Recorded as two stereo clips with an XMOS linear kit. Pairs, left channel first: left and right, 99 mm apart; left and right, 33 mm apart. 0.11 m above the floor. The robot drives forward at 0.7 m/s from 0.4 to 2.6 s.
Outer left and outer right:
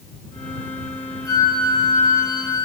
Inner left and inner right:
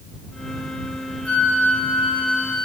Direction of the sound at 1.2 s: 40° left (ahead or behind).